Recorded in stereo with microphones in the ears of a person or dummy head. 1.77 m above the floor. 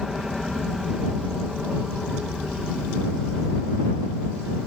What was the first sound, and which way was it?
An aircraft, centre (ahead or behind).